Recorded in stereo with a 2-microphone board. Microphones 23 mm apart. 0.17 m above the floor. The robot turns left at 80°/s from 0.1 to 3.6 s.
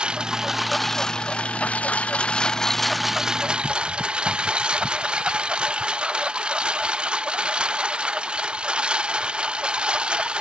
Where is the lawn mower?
130° right; by 10.4 s 50° right.